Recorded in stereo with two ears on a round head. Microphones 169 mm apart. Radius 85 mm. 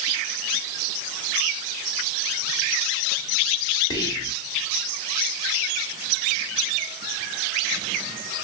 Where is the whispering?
20° left (ahead or behind), 1.0 m.